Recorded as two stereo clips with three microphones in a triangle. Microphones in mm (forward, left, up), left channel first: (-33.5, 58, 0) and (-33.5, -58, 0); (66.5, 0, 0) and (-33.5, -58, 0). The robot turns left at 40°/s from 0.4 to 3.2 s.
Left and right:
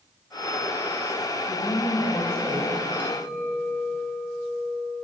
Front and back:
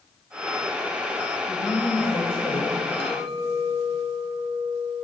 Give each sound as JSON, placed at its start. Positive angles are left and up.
{"t": 1.5, "sound": "a woman speaking", "azimuth_deg": 60, "distance_m": 1.8}
{"t": 3.0, "sound": "a clink", "azimuth_deg": 55, "distance_m": 1.7}